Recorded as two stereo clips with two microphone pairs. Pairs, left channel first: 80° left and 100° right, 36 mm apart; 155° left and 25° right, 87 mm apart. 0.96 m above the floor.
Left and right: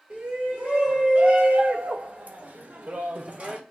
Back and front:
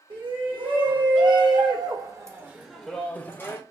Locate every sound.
0.1 s a shout: 35° right, 1.6 m; by 3.6 s 160° right, 0.7 m